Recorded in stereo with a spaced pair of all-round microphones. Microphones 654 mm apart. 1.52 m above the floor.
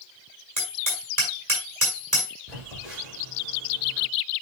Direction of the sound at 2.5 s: 85° right.